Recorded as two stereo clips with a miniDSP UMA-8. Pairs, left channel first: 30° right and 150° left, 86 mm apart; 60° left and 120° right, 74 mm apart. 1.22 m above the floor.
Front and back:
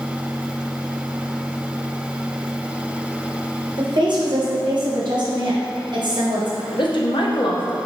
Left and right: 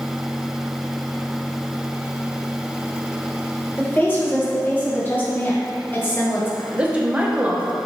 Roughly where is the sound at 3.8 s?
Behind left.